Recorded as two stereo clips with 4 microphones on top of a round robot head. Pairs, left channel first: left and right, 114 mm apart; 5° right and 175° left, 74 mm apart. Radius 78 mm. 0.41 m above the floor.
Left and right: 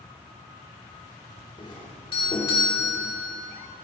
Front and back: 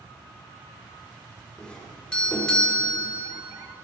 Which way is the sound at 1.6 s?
70° left.